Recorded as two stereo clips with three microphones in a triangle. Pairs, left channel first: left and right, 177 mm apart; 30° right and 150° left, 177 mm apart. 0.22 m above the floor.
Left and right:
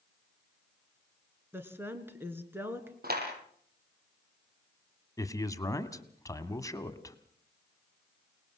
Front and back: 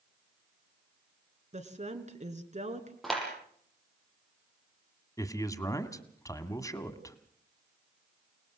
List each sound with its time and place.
1.5 s a woman speaking: 165° right, 2.5 m
3.0 s a clap: 120° right, 6.5 m
5.2 s a man speaking: 30° left, 1.5 m